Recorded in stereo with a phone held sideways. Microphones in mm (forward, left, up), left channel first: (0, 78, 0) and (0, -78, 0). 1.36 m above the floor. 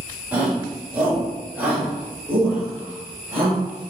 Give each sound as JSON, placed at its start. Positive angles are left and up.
{"t": 0.3, "sound": "a shout", "side_deg": -10, "distance_m": 3.5}